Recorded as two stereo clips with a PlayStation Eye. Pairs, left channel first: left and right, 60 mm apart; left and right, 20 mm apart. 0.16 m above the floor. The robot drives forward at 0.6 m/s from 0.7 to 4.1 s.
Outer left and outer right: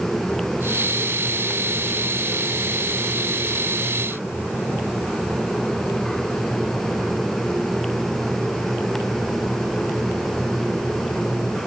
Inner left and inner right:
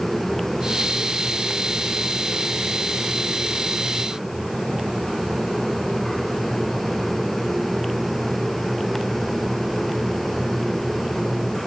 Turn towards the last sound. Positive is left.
No sound to turn to.